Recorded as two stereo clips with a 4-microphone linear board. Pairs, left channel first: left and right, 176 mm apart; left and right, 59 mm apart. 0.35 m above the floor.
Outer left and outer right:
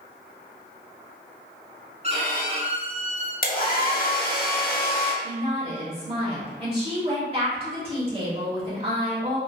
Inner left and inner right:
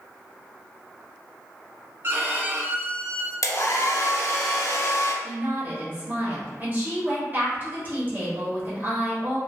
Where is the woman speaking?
30° right (ahead or behind), 1.0 m.